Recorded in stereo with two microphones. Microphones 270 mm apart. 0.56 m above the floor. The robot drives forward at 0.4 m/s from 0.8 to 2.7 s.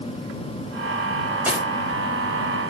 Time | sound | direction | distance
1.4 | cutlery clinking | 5° right (ahead or behind) | 1.0 m